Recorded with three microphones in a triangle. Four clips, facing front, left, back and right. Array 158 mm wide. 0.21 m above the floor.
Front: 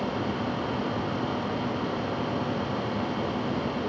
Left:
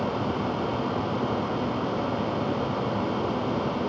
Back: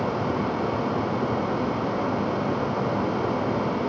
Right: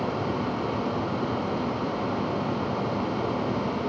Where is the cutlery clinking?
I don't hear cutlery clinking.